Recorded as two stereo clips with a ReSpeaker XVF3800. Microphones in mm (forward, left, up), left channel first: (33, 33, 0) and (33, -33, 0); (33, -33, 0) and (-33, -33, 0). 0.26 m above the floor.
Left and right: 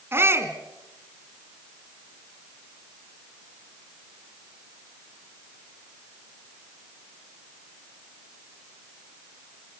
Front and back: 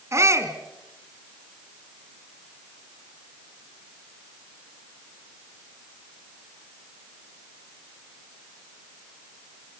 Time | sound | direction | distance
0.1 | a shout | 140° right | 2.5 m